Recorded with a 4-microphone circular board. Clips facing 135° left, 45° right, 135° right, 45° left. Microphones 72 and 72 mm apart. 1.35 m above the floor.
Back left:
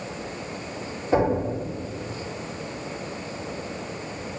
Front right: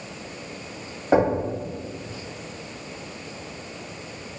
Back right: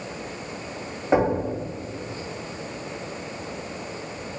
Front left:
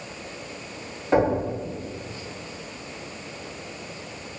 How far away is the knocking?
About 1.5 m.